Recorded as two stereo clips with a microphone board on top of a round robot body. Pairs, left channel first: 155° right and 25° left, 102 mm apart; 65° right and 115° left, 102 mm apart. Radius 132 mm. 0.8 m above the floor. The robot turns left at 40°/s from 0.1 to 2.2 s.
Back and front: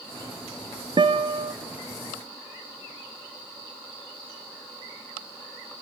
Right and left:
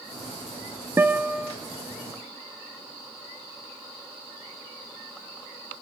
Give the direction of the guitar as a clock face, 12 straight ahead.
10 o'clock.